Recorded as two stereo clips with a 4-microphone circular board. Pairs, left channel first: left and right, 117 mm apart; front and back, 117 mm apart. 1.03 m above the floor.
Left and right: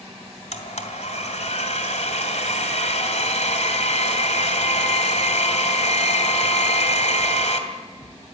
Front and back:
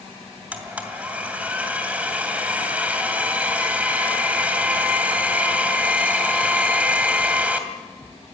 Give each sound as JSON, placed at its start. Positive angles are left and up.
{"t": 0.5, "sound": "a blender", "azimuth_deg": 100, "distance_m": 2.5}